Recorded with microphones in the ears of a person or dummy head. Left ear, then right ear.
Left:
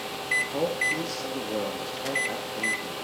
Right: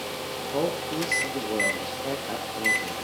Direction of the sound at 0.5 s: 10° left (ahead or behind).